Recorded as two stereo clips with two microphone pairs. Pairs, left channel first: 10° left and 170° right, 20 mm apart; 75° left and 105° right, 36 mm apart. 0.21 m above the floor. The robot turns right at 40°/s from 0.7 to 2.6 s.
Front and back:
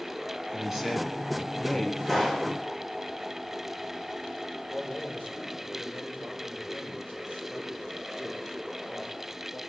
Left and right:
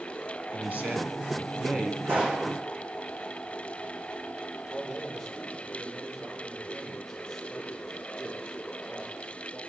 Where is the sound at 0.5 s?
110° right, 2.5 m; by 1.9 s 60° right, 2.5 m.